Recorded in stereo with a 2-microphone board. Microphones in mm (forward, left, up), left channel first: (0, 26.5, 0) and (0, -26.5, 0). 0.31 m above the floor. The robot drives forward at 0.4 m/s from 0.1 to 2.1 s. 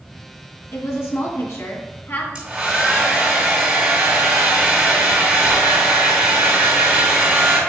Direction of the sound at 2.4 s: 15° right (ahead or behind).